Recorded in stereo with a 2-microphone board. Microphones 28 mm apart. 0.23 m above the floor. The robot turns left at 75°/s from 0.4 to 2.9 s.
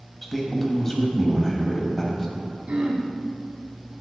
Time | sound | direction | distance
0.2 | a man speaking | centre (ahead or behind) | 1.0 m
2.7 | throat clearing | 50° right (ahead or behind) | 0.9 m